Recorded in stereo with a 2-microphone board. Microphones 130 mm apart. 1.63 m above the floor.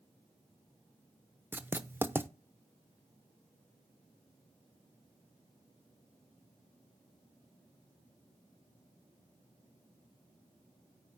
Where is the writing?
15° right (ahead or behind), 0.6 m.